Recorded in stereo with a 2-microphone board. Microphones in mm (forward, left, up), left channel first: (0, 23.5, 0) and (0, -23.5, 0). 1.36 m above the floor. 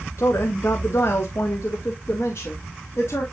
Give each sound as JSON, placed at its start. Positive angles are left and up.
{"t": 0.2, "sound": "a woman speaking", "side_deg": 60, "distance_m": 0.9}